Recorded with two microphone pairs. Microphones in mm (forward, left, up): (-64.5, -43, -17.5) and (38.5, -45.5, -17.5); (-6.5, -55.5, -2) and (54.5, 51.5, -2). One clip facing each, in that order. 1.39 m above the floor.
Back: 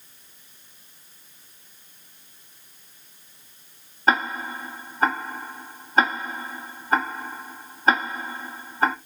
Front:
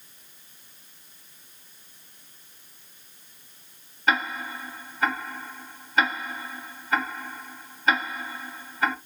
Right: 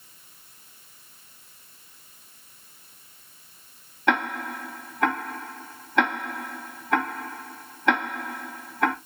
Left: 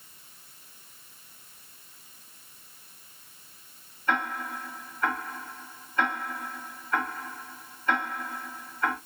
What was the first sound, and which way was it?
Ticking, 125° right.